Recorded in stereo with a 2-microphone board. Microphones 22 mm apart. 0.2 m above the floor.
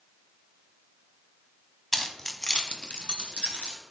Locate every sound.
1.9 s keys jangling: 10° left (ahead or behind), 1.0 m; by 3.8 s 70° left (ahead or behind), 2.5 m